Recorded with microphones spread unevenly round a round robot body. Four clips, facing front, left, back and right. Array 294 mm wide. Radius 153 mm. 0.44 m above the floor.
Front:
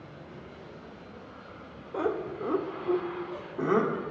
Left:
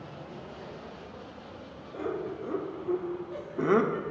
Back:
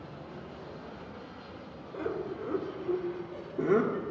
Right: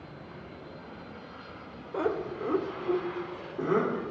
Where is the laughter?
45° right, 1.7 m; by 4.1 s 130° left, 1.4 m.